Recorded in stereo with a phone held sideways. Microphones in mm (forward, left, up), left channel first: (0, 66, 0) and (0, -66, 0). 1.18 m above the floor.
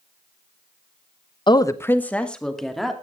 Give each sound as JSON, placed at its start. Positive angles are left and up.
{"t": 1.5, "sound": "a woman speaking", "side_deg": 35, "distance_m": 0.8}